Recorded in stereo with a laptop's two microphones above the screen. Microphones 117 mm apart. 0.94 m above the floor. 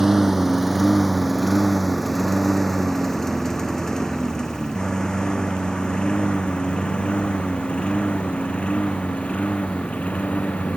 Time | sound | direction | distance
0.0 | a lawn mower | 5° right (ahead or behind) | ?